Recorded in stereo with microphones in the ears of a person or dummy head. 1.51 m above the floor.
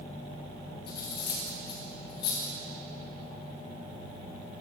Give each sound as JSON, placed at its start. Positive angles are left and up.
{"t": 0.9, "sound": "cutlery clinking", "side_deg": 25, "distance_m": 0.8}